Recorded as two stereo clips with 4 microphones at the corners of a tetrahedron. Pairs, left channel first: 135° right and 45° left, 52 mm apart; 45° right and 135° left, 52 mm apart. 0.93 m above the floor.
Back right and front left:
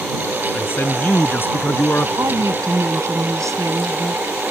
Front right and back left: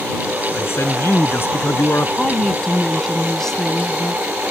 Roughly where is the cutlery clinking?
No cutlery clinking in this recording.